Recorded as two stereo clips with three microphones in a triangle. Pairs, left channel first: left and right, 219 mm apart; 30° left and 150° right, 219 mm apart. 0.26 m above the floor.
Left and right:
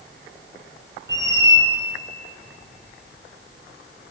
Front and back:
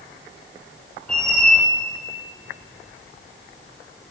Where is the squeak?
55° right, 2 m.